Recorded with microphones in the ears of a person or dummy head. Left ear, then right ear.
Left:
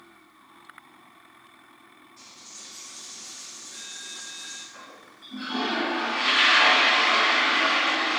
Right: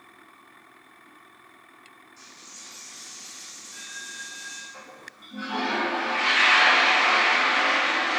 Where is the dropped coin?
15° right (ahead or behind), 3.5 m.